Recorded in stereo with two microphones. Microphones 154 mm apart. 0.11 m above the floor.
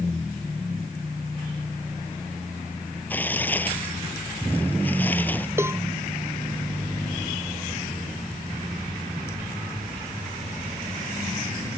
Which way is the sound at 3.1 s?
10° left (ahead or behind).